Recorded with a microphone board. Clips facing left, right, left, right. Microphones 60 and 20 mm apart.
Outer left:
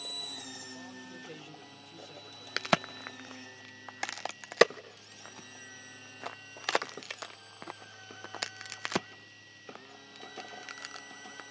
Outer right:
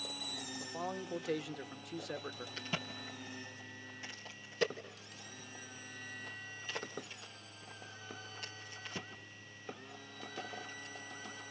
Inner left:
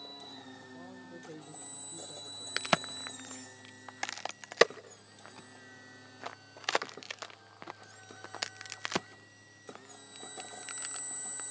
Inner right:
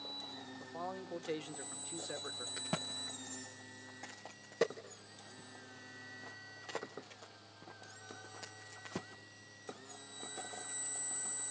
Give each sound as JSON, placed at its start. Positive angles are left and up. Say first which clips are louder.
{"t": 0.6, "sound": "a man speaking", "louder": "outer right 5 dB, inner right 5 dB", "side_deg": -75, "distance_m": 1.4}
{"t": 2.6, "sound": "a crack", "louder": "outer left 15 dB, inner left 12 dB", "side_deg": 85, "distance_m": 0.5}